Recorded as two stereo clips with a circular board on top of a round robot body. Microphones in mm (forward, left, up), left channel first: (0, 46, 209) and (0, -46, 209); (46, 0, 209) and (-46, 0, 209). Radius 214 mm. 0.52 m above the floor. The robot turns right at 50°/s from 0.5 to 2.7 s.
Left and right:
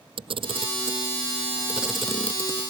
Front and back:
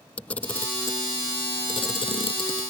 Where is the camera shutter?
75° right; by 2.6 s 30° left.